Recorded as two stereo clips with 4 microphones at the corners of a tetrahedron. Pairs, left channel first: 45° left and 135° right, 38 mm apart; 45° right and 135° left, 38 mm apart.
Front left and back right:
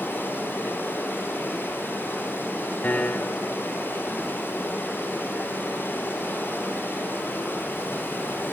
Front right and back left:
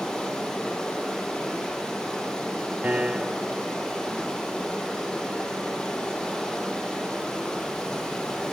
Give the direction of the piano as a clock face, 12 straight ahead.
9 o'clock.